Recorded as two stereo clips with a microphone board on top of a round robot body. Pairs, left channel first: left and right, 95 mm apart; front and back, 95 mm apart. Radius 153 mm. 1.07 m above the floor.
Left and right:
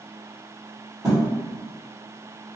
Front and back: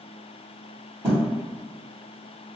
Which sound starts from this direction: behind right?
A thud, at 1.0 s.